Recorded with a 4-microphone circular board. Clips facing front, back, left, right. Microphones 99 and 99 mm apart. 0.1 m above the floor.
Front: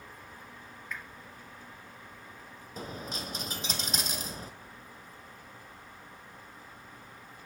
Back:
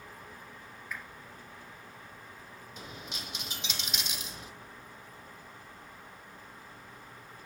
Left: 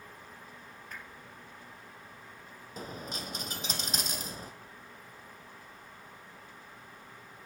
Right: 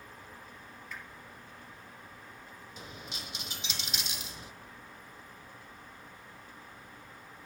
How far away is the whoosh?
About 2.5 m.